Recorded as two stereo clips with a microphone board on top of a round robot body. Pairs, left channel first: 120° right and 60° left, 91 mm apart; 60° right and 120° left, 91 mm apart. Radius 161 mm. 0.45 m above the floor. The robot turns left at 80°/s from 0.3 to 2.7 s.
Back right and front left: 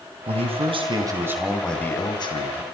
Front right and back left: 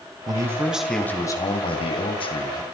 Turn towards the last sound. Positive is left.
turn(degrees=-120)